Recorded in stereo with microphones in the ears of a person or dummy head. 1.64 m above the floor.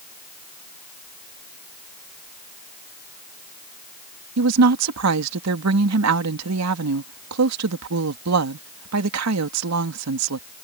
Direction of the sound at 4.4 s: 80° right.